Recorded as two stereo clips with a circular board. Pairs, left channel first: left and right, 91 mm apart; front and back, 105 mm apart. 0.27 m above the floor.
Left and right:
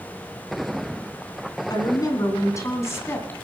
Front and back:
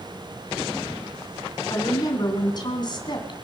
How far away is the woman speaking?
About 3 m.